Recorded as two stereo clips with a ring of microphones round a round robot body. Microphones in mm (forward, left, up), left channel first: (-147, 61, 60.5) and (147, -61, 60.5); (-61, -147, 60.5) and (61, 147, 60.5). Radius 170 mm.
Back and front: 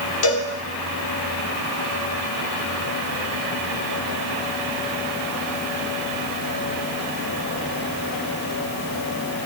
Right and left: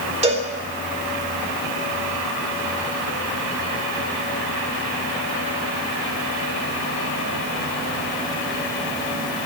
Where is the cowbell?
135° left, 3.5 m.